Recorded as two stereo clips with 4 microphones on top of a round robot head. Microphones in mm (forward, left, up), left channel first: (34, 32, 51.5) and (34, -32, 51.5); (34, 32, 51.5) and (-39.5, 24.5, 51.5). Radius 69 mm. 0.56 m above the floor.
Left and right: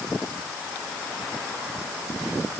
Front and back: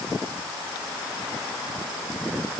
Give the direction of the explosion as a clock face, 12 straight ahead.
I don't hear an explosion.